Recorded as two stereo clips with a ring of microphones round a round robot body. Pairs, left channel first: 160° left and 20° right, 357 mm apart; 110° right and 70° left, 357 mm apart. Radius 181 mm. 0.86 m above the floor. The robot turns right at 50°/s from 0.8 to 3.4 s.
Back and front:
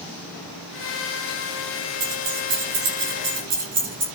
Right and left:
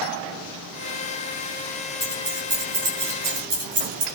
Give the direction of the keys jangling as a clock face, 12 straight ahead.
1 o'clock.